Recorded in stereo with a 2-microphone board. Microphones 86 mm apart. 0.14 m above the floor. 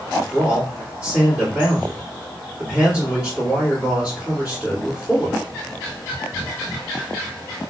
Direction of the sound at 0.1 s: 20° right (ahead or behind).